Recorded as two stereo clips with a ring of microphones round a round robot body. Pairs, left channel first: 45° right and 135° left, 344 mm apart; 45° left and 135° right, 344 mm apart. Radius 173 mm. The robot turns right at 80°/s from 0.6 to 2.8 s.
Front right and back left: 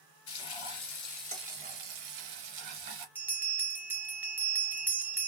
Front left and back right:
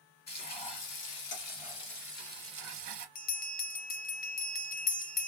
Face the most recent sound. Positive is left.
turn(degrees=60)